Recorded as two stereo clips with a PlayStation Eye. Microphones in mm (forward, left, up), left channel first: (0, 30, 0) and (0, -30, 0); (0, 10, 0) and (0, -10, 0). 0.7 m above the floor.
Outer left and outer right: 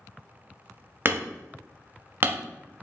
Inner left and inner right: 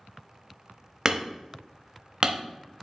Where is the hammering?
40° right (ahead or behind), 0.7 m.